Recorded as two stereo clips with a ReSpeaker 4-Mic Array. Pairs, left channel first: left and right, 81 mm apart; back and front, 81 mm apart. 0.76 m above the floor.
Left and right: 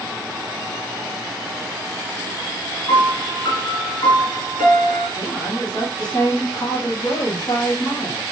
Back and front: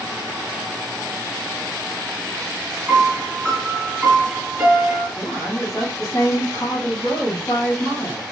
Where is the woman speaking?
145° left, 1.6 m.